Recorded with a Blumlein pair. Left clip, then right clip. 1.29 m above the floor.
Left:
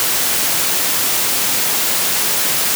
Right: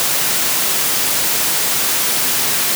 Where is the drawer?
I don't hear a drawer.